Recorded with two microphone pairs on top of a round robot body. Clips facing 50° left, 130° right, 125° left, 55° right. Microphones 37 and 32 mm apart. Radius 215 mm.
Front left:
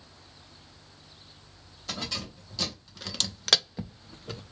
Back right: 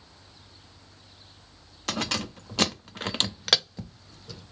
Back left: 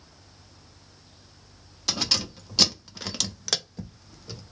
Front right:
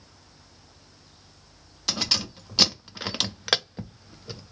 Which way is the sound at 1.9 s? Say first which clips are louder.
Back right 6 dB, even; 140° right.